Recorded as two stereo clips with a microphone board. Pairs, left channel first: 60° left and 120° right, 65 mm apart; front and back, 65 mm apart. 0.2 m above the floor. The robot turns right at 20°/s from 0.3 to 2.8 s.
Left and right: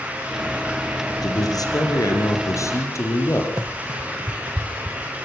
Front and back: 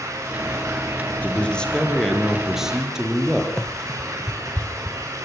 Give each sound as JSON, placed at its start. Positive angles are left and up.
{"t": 1.2, "sound": "a man speaking", "azimuth_deg": 70, "distance_m": 6.0}
{"t": 3.6, "sound": "running footsteps", "azimuth_deg": -85, "distance_m": 0.7}